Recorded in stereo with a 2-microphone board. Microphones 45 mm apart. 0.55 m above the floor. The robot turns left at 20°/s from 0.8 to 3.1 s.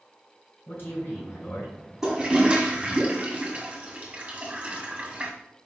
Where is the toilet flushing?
15° right (ahead or behind), 1.5 m; by 5.3 s 25° right (ahead or behind), 1.5 m.